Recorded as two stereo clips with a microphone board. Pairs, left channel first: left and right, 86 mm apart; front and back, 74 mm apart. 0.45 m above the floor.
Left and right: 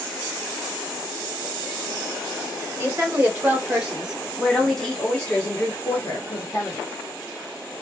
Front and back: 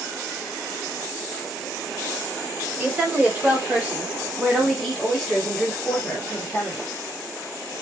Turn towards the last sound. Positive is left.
turn(degrees=60)